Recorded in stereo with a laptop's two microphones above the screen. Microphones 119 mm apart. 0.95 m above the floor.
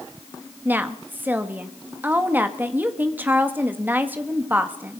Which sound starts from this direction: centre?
A woman speaking, at 0.7 s.